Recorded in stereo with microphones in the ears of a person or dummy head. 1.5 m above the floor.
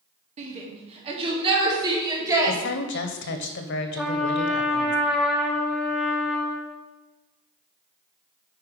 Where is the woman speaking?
60° left (ahead or behind), 1.0 m.